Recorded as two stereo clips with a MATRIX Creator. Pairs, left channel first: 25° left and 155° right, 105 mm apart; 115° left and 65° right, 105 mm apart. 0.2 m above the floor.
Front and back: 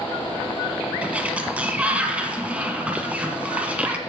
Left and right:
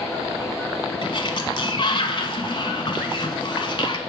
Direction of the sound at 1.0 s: 130° left.